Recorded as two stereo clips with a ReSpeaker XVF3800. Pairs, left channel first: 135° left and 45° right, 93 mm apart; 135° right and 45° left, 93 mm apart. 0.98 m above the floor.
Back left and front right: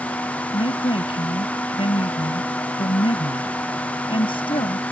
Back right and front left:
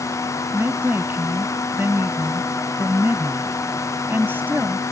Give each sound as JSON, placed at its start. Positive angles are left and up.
{"t": 0.5, "sound": "a woman speaking", "azimuth_deg": 115}